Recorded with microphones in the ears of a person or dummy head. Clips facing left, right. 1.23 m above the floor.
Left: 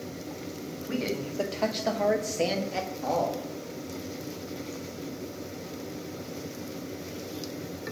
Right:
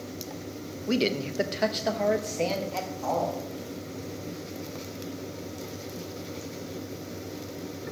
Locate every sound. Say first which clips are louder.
0.9 s a man speaking: right 5 dB; 55° right (ahead or behind), 0.7 m; by 3.5 s 25° left (ahead or behind), 1.8 m